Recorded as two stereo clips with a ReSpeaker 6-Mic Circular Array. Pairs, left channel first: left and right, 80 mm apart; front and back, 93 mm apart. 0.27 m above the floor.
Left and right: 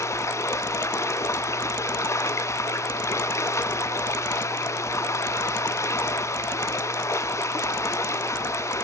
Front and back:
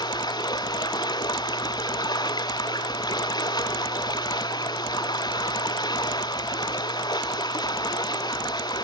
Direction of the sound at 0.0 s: 40° left.